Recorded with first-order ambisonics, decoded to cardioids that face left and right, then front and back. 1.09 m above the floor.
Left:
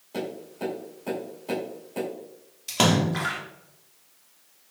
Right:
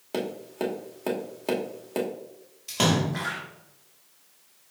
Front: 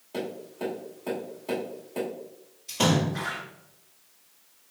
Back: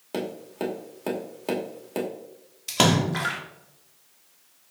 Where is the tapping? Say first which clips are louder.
Right 3 dB, back 3 dB; 130° right, 1.3 m.